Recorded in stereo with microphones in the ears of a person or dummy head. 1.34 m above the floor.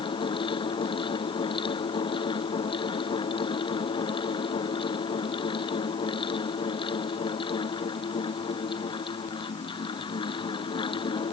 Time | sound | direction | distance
0.0 | a fan | 25° left (ahead or behind) | ?